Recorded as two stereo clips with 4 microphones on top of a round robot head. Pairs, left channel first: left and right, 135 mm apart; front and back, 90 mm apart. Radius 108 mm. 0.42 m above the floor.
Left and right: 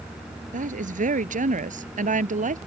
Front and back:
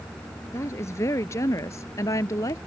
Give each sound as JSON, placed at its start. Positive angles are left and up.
{"t": 0.5, "sound": "a woman speaking", "azimuth_deg": -65}